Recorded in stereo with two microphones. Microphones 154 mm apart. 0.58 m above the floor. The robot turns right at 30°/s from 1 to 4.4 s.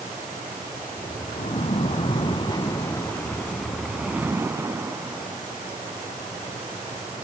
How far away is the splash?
About 0.6 m.